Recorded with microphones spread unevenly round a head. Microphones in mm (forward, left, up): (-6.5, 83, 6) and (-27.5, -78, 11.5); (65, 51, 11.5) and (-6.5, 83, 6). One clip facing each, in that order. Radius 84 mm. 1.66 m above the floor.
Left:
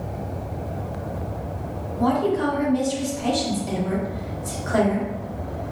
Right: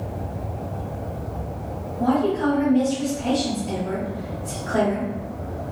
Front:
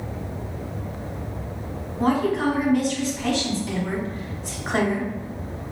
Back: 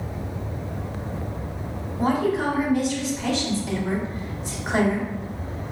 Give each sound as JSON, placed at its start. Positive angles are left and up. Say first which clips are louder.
{"t": 2.0, "sound": "a woman speaking", "louder": "even, front 1 dB", "azimuth_deg": 85, "distance_m": 1.9}